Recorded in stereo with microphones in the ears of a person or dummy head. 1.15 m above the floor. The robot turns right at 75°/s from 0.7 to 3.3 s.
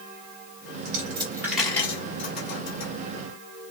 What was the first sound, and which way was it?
A dropped coin, 50° right (ahead or behind).